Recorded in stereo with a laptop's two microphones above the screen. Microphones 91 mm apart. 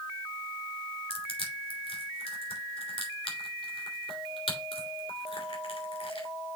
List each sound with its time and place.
1.1 s crushing: 80° left, 3 m